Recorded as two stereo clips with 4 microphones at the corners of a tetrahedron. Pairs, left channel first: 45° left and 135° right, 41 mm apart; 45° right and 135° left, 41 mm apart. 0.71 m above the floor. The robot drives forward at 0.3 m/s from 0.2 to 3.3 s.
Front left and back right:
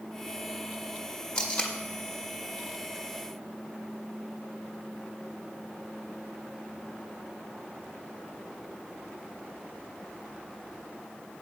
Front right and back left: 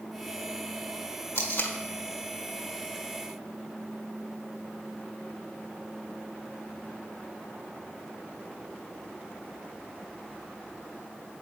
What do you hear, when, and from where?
1.4 s tape being pulled: 25° right, 1.6 m